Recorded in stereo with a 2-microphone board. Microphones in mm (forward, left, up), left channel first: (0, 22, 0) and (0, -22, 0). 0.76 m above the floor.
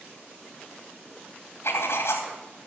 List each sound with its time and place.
1.6 s writing: 75° left (ahead or behind), 3 m